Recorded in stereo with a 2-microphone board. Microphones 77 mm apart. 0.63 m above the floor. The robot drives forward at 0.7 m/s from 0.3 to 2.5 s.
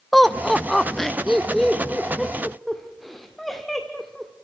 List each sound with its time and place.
0.1 s laughter: 5° left (ahead or behind), 0.6 m; by 4.3 s centre (ahead or behind), 1.3 m